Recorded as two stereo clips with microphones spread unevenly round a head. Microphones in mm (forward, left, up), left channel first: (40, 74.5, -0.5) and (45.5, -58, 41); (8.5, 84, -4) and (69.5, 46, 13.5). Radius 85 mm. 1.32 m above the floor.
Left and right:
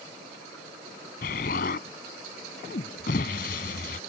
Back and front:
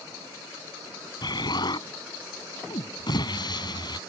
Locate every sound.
1.2 s an explosion: 130° left